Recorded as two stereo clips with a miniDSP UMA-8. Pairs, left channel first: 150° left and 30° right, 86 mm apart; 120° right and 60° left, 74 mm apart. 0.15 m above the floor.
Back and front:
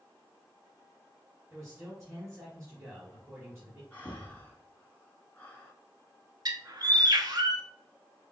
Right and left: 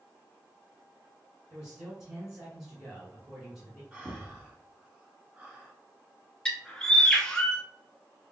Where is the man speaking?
15° right, 1.9 m.